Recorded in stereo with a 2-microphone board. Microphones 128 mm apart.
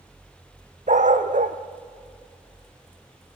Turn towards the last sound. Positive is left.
turn(degrees=-75)  # may be behind; listen again after turning